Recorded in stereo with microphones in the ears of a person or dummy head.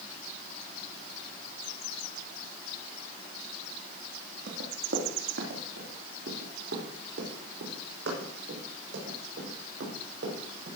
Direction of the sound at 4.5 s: 65° right (ahead or behind).